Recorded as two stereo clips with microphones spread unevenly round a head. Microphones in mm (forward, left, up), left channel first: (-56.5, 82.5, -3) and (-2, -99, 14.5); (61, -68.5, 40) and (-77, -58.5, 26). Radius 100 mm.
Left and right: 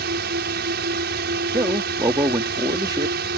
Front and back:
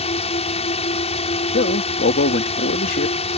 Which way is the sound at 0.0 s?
40° right.